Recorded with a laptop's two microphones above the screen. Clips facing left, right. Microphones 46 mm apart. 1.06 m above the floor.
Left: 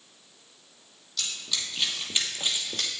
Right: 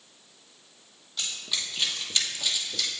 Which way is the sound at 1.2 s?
25° right (ahead or behind).